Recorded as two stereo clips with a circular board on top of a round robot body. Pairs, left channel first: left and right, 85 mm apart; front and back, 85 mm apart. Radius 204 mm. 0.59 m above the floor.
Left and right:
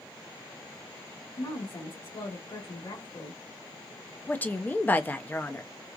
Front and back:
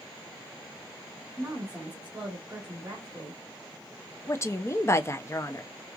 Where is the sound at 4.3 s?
35° left, 0.8 m.